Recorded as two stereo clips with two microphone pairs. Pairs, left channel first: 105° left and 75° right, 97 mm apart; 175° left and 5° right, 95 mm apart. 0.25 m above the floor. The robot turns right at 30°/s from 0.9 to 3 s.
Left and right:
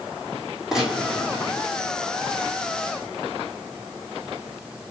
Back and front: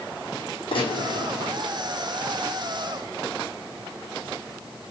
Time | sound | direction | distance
0.7 | a gunshot | 160° right | 4.5 m